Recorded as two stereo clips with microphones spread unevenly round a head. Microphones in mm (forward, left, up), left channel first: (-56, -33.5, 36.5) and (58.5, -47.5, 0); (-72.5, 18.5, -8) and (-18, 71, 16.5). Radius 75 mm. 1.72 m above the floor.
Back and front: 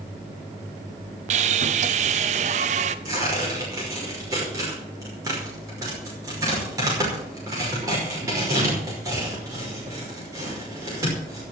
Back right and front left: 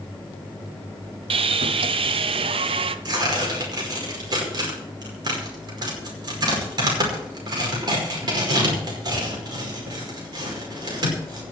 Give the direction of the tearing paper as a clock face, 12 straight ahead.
10 o'clock.